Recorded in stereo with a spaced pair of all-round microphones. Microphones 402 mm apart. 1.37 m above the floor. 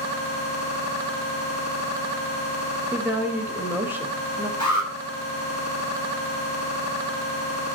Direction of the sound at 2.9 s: 5° right (ahead or behind).